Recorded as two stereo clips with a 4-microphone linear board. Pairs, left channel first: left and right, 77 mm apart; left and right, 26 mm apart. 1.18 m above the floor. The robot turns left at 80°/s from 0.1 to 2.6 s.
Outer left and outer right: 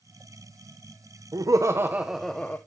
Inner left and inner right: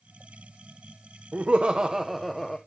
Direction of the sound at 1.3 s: 100° right.